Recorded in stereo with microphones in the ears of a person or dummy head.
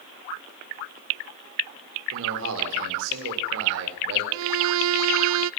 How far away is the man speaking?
About 5 m.